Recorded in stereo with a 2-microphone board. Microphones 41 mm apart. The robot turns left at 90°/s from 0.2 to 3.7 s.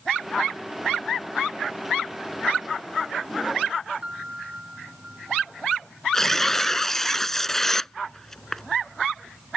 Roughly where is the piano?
Right.